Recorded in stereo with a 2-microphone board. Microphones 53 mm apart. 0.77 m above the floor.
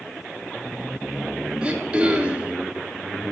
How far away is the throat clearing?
About 1.0 m.